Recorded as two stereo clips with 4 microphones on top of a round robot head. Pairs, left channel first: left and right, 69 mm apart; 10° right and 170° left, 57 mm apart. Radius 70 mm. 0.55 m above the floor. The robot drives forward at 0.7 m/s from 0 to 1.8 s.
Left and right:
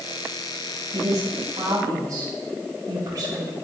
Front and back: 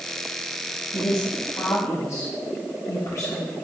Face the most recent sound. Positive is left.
turn(degrees=-50)